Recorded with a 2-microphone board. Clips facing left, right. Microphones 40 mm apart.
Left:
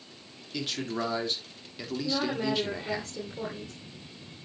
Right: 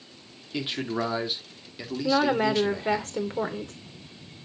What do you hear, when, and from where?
0.5 s a man speaking: 25° right (ahead or behind), 1.8 m; by 3.0 s 15° left (ahead or behind), 2 m
2.0 s a woman speaking: 60° right (ahead or behind), 2 m